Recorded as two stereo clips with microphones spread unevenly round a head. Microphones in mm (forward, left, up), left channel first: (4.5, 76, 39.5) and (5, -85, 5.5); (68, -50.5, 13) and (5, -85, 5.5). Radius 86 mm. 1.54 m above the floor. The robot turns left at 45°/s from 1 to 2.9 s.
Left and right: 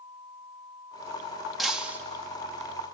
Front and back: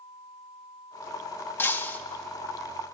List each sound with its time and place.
1.6 s breaking glass: 20° left, 1.0 m; by 2.0 s 5° left, 1.0 m